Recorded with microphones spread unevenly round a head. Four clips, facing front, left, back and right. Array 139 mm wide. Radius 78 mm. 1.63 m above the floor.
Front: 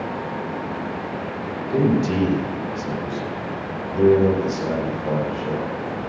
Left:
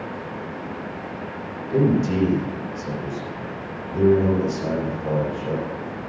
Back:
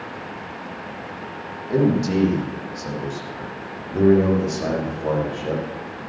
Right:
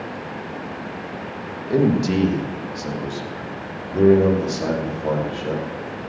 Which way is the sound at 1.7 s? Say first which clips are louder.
Right 1 dB, even; 95° right.